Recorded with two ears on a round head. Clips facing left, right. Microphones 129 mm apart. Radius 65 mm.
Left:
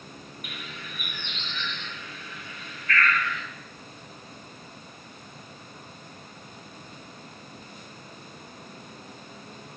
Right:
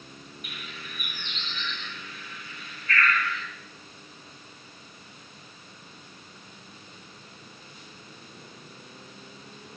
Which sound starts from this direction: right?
A bird, at 0.4 s.